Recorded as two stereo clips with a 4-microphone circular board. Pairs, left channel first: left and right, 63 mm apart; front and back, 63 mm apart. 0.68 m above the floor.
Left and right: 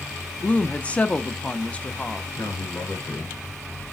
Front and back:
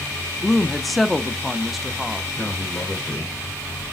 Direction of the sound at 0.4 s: 90° left.